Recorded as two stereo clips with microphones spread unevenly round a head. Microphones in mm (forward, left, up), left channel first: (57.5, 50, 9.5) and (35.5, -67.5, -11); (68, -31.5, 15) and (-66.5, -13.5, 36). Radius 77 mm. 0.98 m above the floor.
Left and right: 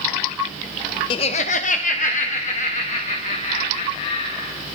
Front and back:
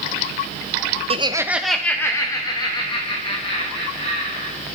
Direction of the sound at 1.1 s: 135° left.